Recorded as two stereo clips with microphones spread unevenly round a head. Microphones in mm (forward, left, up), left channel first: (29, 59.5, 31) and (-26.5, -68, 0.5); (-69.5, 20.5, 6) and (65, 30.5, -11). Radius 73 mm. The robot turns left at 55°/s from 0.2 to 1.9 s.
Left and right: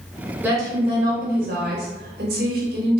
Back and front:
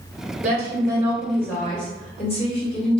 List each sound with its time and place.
0.4 s a woman speaking: 35° right, 1.1 m; by 3.0 s 120° right, 1.1 m